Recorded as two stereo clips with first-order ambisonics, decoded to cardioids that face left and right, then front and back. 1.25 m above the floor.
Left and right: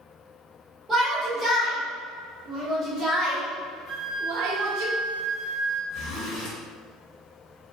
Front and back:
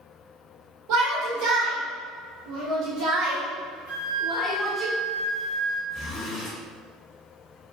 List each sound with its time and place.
0.9 s a shout: 170° right, 1.9 m; by 4.9 s 75° right, 0.7 m
3.9 s a flute: 120° left, 1.6 m
5.9 s a zipper: 55° left, 1.2 m